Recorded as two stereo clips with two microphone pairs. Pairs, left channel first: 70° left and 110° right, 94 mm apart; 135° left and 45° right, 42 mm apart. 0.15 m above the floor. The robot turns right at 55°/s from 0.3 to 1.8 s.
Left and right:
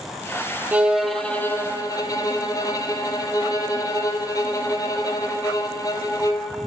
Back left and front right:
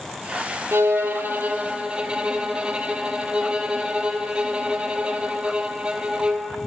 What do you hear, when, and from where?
0.7 s a violin: 40° right, 0.6 m; by 6.5 s 20° left, 0.6 m